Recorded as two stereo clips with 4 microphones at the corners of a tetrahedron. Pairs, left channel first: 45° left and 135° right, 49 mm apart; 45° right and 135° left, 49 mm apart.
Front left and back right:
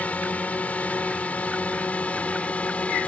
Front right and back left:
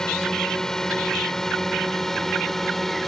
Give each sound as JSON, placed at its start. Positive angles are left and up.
{"t": 0.0, "sound": "a drone", "azimuth_deg": 20}